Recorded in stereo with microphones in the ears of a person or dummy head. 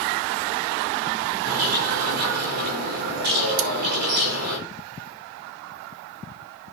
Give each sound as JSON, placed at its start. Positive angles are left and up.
{"t": 1.4, "sound": "a bird", "side_deg": -55, "distance_m": 5.0}
{"t": 3.6, "sound": "cutlery clinking", "side_deg": -80, "distance_m": 1.1}